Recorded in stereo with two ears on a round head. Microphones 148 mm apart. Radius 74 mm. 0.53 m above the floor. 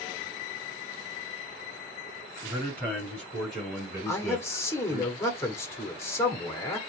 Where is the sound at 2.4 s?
10° left (ahead or behind), 5 m; by 5.1 s 10° right (ahead or behind), 4 m.